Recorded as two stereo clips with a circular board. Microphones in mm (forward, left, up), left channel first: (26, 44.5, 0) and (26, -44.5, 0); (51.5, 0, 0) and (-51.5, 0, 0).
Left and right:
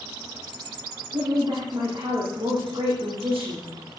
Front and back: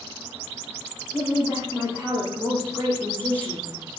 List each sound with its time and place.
1.1 s a woman speaking: 75° right, 9.5 m